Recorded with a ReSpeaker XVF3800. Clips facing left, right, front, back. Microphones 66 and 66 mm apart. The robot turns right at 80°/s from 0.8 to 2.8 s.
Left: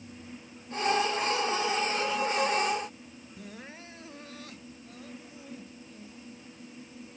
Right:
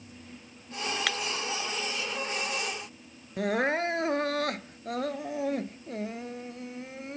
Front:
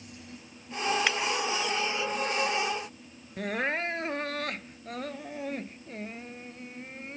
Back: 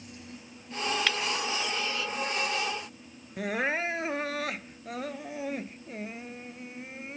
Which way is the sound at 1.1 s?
75° right.